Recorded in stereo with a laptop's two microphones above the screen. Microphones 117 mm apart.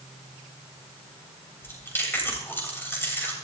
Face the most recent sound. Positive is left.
turn(degrees=20)  # may be behind; listen again after turning